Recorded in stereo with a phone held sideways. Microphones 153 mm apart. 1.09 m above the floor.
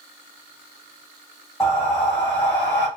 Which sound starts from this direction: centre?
Breathing, at 1.6 s.